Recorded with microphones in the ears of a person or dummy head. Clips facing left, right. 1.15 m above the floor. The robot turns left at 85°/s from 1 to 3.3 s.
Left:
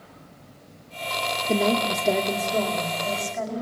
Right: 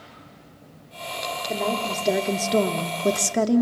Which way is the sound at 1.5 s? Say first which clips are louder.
Left 4 dB; 45° left.